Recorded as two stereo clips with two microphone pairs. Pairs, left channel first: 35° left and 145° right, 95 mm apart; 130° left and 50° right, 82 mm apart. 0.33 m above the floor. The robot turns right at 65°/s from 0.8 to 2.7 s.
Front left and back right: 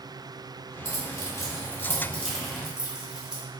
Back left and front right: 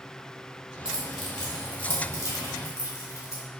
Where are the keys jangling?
15° left, 0.9 m; by 3.4 s 135° left, 0.9 m.